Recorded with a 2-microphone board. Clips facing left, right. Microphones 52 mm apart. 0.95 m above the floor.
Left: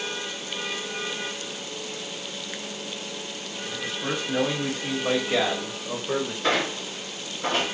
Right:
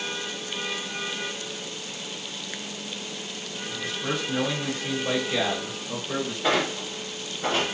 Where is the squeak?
5° right (ahead or behind), 1.5 m.